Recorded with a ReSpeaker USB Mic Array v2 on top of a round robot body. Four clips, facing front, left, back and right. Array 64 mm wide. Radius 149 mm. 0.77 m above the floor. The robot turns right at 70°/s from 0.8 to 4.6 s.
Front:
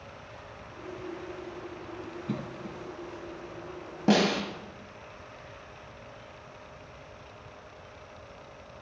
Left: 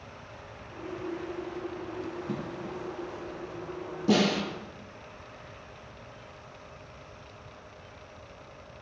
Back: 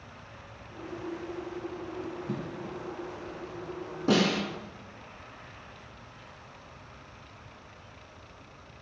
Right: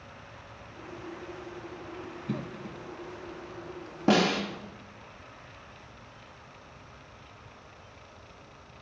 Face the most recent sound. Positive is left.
turn(degrees=-20)